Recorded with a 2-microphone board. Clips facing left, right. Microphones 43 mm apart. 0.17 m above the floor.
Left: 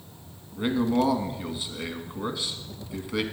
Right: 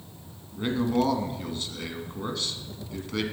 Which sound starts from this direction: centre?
A man speaking, at 0.5 s.